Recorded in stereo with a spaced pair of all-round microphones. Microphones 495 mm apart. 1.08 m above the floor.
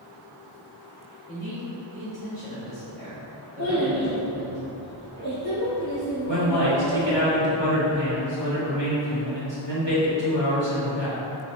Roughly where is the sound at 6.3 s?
Left.